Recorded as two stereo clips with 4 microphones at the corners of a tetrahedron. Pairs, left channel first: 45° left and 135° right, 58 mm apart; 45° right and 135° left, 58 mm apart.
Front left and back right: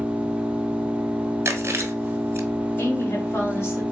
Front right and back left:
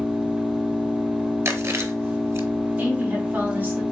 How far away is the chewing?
About 1.2 m.